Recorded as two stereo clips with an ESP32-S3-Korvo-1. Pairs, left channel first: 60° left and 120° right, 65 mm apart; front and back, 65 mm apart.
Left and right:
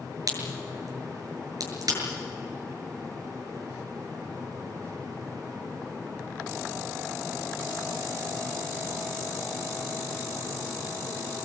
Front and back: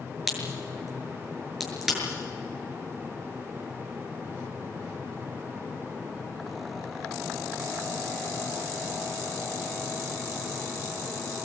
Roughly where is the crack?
Right.